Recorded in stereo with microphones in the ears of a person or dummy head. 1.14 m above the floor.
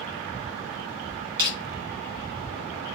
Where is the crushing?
30° right (ahead or behind), 1.1 m.